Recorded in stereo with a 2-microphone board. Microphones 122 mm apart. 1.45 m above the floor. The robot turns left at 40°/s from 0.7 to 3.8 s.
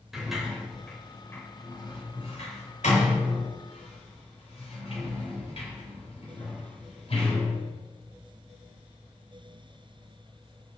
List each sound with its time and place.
0.1 s a sliding door: centre (ahead or behind), 3 m; by 7.6 s 55° left (ahead or behind), 3 m